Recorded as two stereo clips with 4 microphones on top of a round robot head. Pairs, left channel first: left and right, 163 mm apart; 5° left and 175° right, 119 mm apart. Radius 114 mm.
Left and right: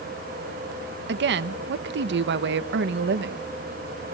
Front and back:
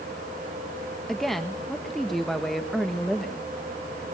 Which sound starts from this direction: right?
A woman speaking, at 1.1 s.